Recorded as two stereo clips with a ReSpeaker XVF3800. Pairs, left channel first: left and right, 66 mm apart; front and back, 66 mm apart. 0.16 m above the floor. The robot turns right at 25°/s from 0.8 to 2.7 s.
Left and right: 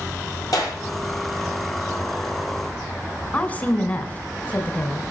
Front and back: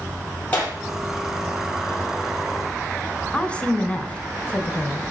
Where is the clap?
65° left, 4 m.